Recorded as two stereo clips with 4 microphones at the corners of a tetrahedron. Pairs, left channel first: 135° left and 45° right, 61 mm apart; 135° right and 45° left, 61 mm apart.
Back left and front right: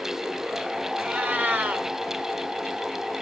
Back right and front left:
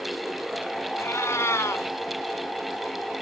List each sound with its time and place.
1.0 s a cat meowing: 105° right, 1.1 m